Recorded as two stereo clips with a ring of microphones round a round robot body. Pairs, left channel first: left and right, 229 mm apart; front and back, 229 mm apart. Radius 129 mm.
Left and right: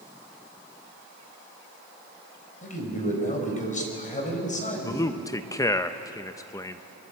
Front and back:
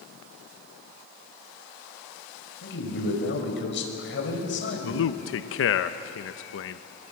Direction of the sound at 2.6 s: 35° left.